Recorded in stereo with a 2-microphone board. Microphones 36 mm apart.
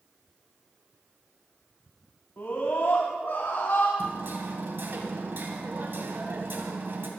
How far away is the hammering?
About 2.5 m.